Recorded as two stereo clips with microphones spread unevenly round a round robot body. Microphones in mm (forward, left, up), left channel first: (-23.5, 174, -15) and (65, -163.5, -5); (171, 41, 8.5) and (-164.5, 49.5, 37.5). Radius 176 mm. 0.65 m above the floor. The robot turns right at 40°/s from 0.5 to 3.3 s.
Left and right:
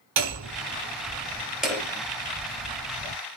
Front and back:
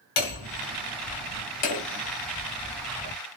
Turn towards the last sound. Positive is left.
turn(degrees=80)